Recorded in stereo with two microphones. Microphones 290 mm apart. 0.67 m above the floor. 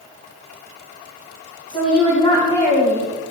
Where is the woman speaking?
20° left (ahead or behind), 5 m; by 3.1 s 10° left (ahead or behind), 3 m.